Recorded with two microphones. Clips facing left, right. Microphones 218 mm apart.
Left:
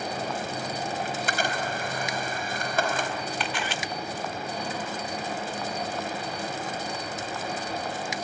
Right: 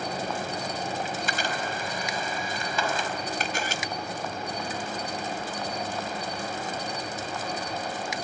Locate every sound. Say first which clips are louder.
0.0 s an insect: even; 5° left (ahead or behind), 7.5 m
1.1 s a camera shutter: left 2 dB; 60° left (ahead or behind), 4 m
3.4 s a camera shutter: even; 45° right (ahead or behind), 1.5 m